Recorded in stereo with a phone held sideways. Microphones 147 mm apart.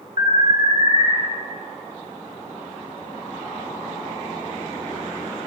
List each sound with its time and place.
0.2 s an alarm: 35° right (ahead or behind), 4 m